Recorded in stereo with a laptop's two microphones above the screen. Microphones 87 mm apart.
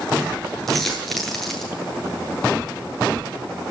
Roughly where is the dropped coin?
Centre.